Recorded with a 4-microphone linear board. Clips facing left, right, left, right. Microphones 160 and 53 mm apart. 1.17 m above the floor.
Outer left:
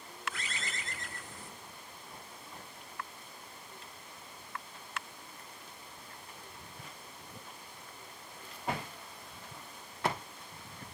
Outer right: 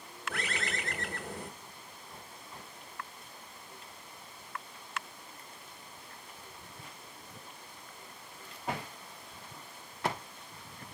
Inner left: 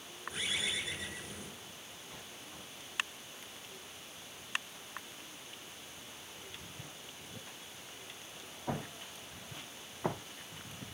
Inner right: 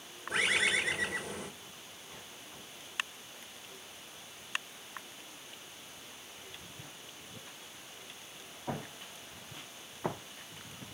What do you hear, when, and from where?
0.3 s a bird: 65° right (ahead or behind), 2.5 m